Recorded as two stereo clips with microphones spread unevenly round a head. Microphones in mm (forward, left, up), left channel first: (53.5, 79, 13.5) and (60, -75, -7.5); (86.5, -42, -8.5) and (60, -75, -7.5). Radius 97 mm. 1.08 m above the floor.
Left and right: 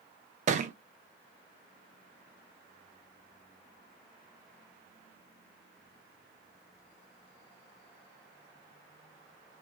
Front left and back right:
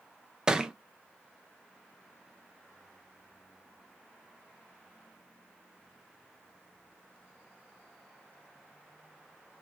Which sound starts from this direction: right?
A thud, at 0.5 s.